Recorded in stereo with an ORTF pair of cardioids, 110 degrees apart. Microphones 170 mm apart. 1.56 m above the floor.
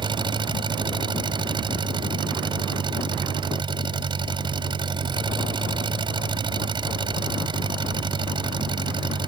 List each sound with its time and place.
0.0 s an engine running: 30° right